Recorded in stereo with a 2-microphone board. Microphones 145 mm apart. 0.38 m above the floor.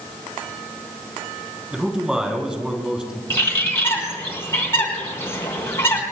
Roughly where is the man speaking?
Centre.